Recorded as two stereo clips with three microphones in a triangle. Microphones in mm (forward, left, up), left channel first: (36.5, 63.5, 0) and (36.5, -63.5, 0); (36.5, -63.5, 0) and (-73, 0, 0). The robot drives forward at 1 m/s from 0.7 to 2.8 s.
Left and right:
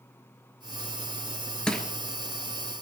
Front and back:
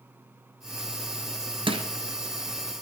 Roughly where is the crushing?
Behind.